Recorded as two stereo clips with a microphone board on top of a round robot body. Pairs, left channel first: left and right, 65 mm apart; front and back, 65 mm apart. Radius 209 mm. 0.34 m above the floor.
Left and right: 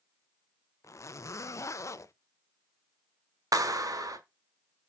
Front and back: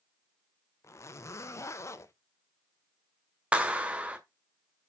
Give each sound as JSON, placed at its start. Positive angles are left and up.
{"t": 0.8, "sound": "a zipper", "azimuth_deg": 45, "distance_m": 0.6}
{"t": 3.5, "sound": "a clap", "azimuth_deg": -110, "distance_m": 1.6}